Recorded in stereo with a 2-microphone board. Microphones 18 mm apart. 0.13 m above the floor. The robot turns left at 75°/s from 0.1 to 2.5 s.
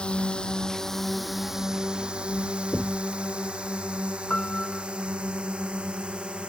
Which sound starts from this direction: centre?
Knocking, at 2.7 s.